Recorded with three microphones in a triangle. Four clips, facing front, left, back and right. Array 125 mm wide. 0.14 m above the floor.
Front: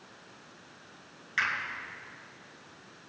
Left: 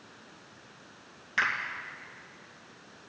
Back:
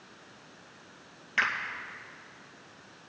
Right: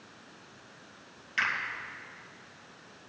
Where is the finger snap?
135° left, 2.5 m.